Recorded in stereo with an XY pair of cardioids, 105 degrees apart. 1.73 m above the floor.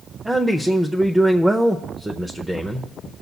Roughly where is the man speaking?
Ahead.